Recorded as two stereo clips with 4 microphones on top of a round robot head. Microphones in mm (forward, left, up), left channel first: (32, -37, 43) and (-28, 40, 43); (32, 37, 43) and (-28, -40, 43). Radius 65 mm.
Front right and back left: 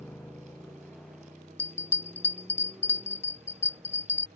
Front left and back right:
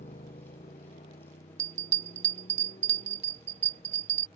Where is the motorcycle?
30° left; by 4.4 s 45° left.